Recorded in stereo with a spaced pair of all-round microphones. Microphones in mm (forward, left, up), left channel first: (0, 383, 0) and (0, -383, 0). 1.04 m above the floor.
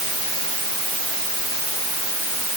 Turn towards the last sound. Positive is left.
No sound to turn to.